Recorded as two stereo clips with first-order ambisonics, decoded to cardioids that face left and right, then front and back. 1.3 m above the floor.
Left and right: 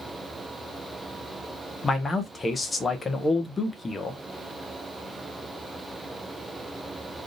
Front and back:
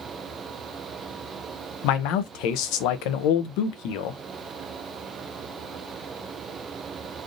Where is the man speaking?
15° left, 0.6 m.